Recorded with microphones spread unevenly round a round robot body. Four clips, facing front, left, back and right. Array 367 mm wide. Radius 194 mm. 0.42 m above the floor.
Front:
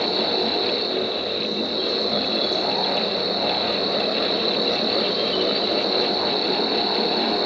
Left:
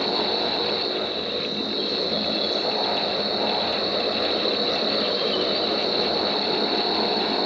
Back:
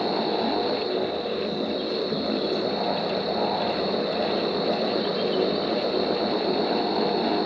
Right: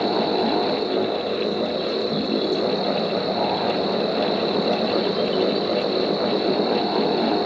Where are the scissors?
No scissors in this recording.